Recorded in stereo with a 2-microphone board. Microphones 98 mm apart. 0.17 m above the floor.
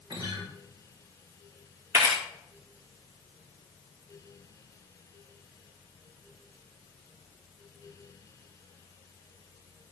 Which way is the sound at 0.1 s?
45° right (ahead or behind).